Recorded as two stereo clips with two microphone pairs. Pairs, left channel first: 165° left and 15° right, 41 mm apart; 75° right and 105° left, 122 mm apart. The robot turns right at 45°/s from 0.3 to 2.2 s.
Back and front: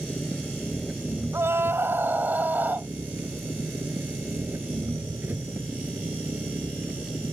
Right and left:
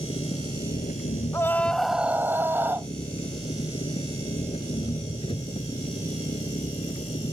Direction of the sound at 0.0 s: 120° right.